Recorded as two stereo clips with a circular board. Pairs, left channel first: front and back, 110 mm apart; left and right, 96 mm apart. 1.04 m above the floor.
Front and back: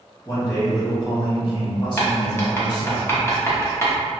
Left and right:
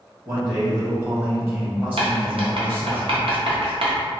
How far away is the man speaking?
About 1.6 m.